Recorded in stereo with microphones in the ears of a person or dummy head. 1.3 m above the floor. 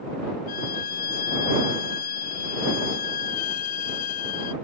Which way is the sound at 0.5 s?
50° left (ahead or behind).